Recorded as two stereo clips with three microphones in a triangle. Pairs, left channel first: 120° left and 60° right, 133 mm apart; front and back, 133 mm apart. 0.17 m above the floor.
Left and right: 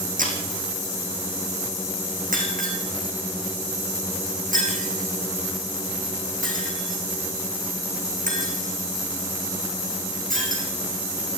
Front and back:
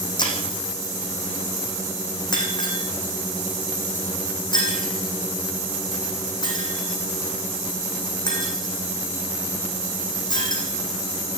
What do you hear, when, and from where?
0.2 s breaking glass: 55° right, 5.5 m